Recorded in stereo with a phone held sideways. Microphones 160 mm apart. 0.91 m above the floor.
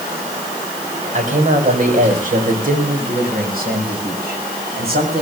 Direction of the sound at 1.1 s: 50° right (ahead or behind).